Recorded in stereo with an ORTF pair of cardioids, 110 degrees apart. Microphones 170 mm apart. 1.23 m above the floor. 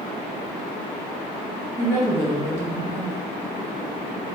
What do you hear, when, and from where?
1.8 s a woman speaking: 15° right, 1.3 m